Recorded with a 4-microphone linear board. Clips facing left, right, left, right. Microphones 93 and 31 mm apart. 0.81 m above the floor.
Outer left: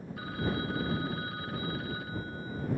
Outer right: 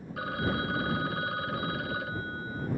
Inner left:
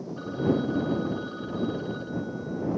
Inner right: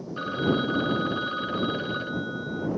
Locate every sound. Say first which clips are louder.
0.2 s a phone ringing: outer right 3 dB, inner right 1 dB; 70° right (ahead or behind)